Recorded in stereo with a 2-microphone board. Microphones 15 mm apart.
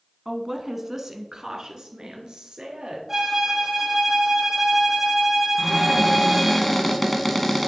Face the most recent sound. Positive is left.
turn(degrees=15)  # may be behind; listen again after turning